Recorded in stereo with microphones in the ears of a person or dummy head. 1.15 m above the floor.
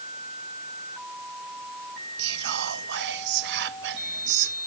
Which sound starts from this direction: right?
Whispering, at 2.2 s.